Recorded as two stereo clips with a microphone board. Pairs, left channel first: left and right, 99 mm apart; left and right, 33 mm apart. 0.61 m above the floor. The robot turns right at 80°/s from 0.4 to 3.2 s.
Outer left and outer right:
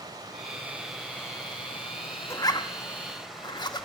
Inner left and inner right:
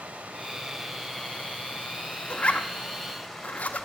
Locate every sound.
0.0 s running water: 40° right, 2.5 m; by 3.9 s 175° right, 2.5 m
2.3 s a zipper: 30° left (ahead or behind), 1.2 m; by 3.9 s 45° left (ahead or behind), 1.2 m